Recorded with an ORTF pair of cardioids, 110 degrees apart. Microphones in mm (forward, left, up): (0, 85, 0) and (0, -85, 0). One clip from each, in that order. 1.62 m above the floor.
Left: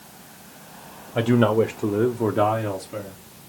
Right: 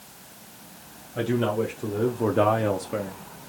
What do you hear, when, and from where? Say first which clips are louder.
1.1 s a man speaking: left 6 dB; 60° left, 0.9 m; by 3.2 s 40° right, 0.9 m